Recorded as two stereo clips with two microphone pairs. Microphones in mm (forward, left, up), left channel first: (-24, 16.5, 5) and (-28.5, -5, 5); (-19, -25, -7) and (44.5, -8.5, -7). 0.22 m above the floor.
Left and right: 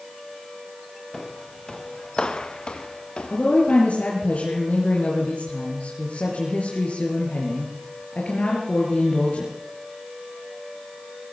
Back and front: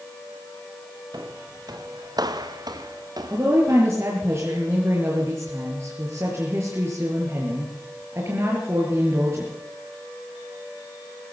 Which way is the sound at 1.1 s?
15° left.